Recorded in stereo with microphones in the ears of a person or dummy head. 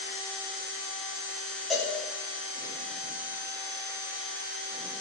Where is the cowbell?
Centre (ahead or behind), 2.5 m.